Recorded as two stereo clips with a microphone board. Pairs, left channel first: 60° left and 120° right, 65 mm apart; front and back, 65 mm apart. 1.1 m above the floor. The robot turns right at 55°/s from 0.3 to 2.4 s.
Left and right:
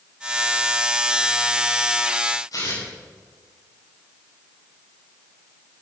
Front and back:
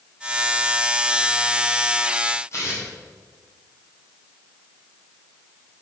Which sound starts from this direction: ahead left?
Tearing paper, at 2.5 s.